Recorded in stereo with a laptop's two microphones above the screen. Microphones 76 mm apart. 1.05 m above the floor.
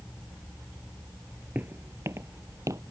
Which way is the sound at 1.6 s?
25° right (ahead or behind).